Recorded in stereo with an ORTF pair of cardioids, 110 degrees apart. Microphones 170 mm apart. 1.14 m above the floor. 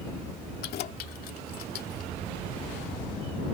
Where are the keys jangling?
65° left.